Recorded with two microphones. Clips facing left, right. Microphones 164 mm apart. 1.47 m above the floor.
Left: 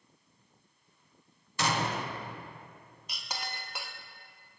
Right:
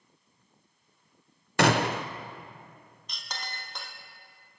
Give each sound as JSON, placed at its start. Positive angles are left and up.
{"t": 1.6, "sound": "a gunshot", "side_deg": -65, "distance_m": 0.5}
{"t": 3.1, "sound": "a clink", "side_deg": 10, "distance_m": 0.9}